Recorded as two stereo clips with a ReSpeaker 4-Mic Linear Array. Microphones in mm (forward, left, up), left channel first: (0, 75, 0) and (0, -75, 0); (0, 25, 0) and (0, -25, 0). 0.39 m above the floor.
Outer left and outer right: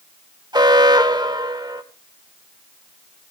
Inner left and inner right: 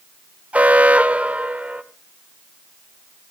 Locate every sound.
0.5 s an alarm: 30° right (ahead or behind), 1.0 m